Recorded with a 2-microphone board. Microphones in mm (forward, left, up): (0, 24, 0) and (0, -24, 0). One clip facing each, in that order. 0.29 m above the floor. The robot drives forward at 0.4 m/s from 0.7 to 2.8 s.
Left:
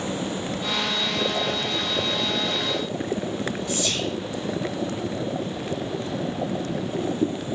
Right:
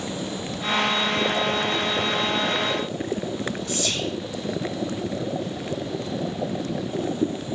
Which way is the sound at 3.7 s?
5° left (ahead or behind).